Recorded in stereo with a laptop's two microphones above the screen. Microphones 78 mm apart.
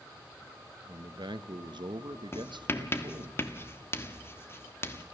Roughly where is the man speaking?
Right.